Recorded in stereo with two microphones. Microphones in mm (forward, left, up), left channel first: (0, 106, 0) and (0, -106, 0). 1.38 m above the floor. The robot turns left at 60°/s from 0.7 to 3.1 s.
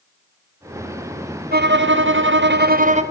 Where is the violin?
55° right, 0.8 m; by 3.0 s 145° right, 0.8 m.